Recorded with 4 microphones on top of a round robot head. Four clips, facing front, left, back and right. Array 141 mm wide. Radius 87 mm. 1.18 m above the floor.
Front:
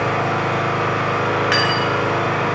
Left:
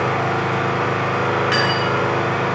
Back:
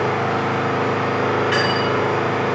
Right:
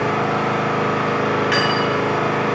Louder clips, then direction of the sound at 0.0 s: Right 1 dB, even; 55° left.